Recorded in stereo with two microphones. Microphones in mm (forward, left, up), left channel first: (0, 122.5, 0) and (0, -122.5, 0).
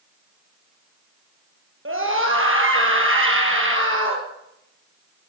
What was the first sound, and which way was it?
A scream, 55° right (ahead or behind).